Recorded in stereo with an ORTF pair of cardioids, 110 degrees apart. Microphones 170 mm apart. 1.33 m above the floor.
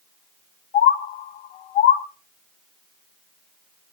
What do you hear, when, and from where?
0.7 s a bird: 70° left, 1.0 m